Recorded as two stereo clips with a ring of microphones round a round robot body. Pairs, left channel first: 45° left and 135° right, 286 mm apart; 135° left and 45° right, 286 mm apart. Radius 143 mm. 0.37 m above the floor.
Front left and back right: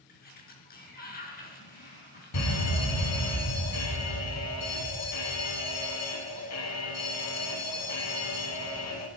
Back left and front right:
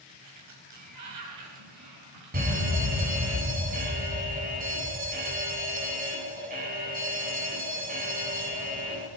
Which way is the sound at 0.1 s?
15° right.